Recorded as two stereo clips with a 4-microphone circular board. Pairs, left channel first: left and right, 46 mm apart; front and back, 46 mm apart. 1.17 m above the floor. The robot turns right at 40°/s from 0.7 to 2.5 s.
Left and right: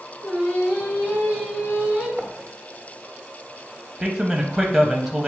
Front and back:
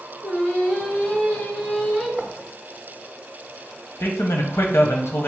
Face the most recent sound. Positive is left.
turn(degrees=0)